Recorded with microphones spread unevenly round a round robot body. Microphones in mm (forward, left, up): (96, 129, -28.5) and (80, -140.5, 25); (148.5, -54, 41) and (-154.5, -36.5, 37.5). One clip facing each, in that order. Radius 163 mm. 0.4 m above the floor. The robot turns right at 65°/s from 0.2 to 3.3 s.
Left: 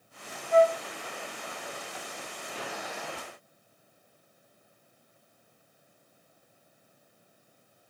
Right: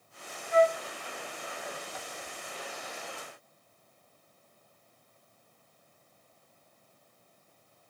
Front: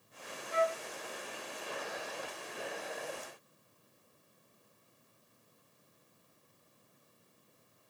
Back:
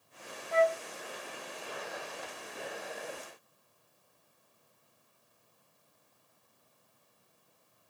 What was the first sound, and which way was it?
A flute, 55° left.